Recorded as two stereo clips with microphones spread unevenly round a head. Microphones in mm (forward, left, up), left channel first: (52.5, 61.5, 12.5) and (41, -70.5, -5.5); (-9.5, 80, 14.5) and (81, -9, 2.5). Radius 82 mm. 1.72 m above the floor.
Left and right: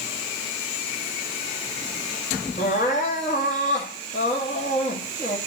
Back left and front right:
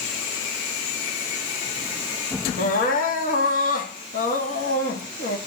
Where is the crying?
130° left, 2.5 m.